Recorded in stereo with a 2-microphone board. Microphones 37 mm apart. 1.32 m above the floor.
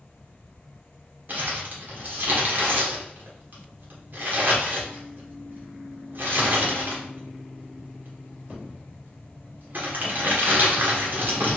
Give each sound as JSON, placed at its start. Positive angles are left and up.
{"t": 1.3, "sound": "crumpling", "side_deg": -60, "distance_m": 1.5}